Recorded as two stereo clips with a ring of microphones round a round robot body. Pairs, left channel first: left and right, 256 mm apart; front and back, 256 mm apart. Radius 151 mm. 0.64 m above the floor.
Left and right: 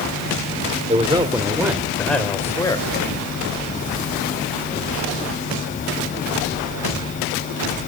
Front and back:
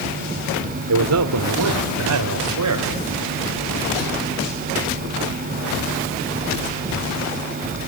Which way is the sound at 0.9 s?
155° right.